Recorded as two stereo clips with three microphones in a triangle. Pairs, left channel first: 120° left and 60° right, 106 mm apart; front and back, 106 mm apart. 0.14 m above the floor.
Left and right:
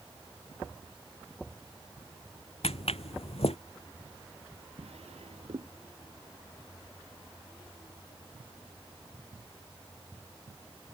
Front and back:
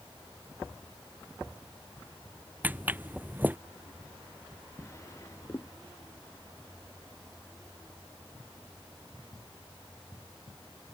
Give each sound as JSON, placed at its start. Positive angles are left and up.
{"t": 2.6, "sound": "footsteps", "azimuth_deg": 110}
{"t": 4.8, "sound": "a drawer", "azimuth_deg": -60}